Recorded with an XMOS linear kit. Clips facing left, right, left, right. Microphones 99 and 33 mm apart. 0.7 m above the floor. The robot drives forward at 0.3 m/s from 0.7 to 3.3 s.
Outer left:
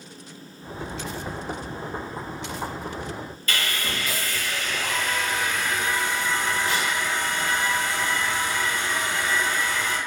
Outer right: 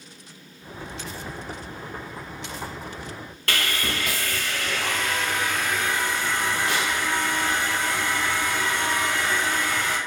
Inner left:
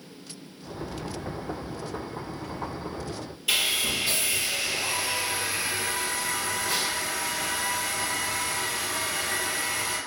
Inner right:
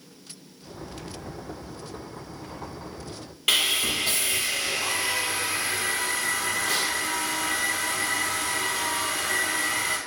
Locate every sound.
3.5 s sawing: 65° right (ahead or behind), 1.0 m